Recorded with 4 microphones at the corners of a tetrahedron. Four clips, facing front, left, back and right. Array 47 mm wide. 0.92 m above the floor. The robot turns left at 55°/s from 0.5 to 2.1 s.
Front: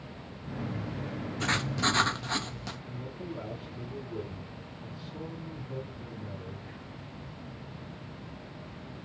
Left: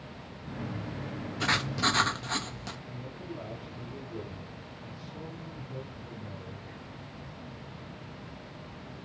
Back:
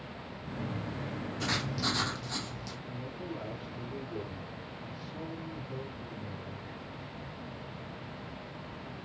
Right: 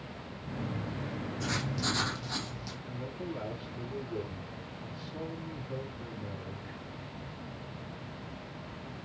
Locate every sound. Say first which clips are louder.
1.4 s writing: left 7 dB, front 4 dB; 75° left, 1.1 m; by 2.8 s 35° left, 1.1 m
2.9 s a man speaking: right 2 dB, even; 85° right, 3 m